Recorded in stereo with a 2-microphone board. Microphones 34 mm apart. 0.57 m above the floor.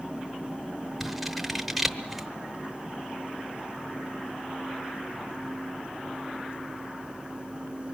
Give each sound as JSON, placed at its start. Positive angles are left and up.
{"t": 1.0, "sound": "scissors", "side_deg": -5, "distance_m": 0.9}